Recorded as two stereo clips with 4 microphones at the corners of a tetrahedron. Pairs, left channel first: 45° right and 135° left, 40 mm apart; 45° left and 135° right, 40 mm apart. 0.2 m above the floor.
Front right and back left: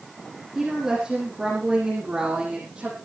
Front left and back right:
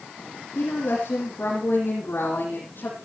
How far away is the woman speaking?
About 7 m.